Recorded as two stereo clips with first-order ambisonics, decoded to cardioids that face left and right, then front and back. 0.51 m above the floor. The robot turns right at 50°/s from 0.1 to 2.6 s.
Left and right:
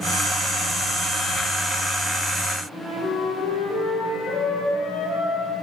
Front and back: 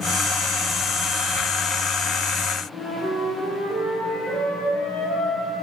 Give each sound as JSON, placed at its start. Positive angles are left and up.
{"t": 2.7, "sound": "a flute", "azimuth_deg": 70, "distance_m": 9.0}